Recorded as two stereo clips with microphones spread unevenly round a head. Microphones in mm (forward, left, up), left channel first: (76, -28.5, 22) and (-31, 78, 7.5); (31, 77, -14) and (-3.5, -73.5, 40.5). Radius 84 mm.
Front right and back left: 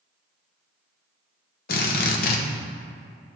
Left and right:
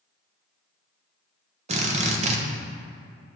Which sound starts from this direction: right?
A drill, at 1.7 s.